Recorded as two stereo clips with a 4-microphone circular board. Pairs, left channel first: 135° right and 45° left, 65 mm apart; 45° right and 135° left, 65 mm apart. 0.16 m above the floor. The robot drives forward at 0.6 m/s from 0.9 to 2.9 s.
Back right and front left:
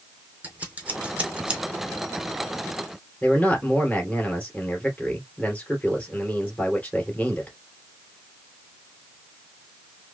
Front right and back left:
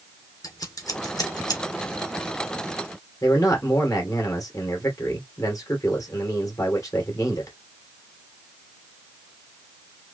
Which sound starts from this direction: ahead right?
Scissors, at 0.4 s.